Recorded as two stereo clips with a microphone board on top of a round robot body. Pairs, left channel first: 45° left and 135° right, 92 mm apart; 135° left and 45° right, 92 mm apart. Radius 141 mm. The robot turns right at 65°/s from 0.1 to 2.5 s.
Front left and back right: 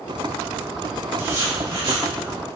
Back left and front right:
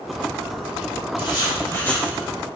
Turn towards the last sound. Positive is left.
turn(degrees=-120)